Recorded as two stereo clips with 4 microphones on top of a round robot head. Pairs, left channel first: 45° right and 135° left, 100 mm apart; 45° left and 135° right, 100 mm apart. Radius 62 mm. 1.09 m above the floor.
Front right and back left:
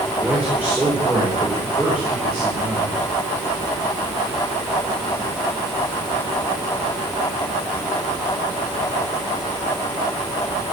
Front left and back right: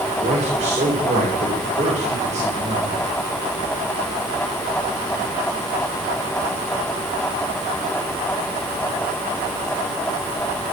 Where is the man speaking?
145° right, 3.5 m.